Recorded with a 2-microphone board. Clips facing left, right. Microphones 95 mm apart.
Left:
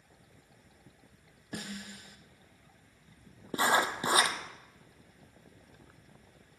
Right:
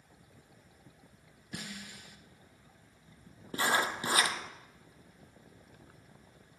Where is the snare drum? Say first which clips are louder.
Left 3 dB; 45° left (ahead or behind), 1.4 m.